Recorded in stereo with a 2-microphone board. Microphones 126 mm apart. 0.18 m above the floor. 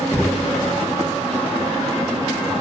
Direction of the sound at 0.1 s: 15° left (ahead or behind).